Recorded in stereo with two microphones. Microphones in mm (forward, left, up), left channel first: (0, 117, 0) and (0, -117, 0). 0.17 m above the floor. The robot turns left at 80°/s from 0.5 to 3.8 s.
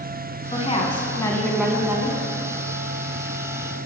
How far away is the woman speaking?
About 1.1 m.